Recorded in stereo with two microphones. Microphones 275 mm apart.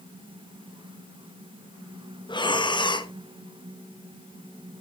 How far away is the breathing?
About 0.9 m.